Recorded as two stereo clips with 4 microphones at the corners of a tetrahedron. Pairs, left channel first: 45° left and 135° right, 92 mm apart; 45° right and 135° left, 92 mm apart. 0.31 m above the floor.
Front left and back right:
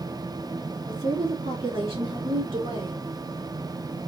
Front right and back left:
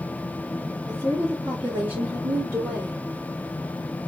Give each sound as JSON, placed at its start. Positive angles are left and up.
{"t": 0.9, "sound": "a woman speaking", "azimuth_deg": -170, "distance_m": 3.0}